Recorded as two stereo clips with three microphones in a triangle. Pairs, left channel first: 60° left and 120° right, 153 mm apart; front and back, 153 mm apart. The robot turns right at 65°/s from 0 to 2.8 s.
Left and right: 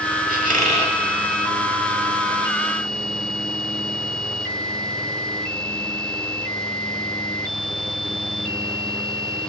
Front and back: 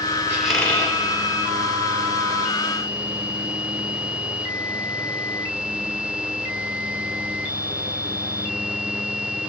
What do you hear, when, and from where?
0.3 s a squeak: 100° right, 0.9 m; by 1.0 s 60° right, 0.9 m